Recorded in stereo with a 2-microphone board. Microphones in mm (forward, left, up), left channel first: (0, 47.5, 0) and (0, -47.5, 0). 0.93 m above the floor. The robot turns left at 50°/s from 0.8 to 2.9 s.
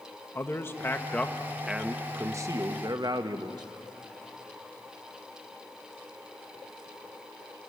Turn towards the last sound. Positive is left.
turn(degrees=-70)